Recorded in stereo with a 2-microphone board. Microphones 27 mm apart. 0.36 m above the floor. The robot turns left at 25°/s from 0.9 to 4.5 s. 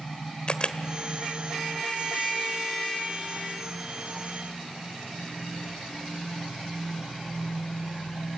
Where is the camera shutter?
35° left (ahead or behind), 1.0 m.